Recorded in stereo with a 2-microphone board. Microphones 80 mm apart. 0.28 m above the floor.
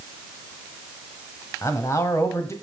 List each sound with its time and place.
1.6 s a man speaking: 40° left (ahead or behind), 1.6 m